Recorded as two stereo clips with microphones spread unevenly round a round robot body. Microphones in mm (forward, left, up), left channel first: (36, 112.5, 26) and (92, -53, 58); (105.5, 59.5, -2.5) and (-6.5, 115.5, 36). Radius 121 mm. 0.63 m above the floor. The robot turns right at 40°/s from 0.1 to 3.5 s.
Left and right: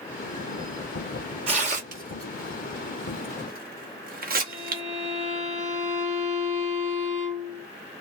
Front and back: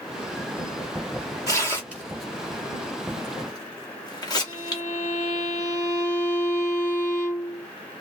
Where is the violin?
15° right, 1.6 m.